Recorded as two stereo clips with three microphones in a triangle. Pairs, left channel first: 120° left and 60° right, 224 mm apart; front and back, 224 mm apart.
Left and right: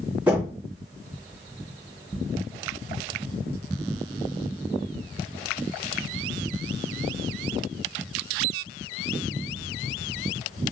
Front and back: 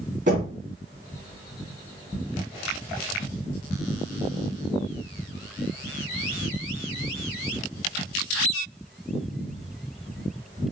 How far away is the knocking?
About 2.5 m.